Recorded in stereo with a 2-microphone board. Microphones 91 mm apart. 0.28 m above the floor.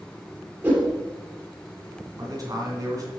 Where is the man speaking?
40° right (ahead or behind), 3 m.